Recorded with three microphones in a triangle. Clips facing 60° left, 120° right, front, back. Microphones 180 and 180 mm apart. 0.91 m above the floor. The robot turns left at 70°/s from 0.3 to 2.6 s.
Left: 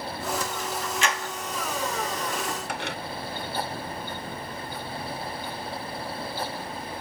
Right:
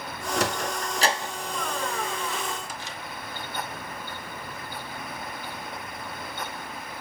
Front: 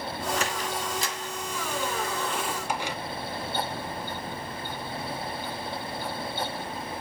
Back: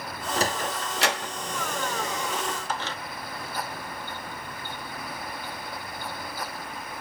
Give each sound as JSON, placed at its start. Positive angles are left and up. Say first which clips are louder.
{"t": 0.4, "sound": "a sliding door", "louder": "right 3 dB, back 2 dB", "azimuth_deg": -125, "distance_m": 1.0}